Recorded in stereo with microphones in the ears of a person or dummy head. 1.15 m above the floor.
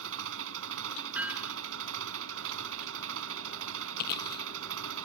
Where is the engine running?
80° right.